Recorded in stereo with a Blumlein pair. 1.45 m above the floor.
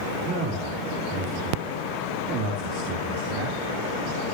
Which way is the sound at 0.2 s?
35° right.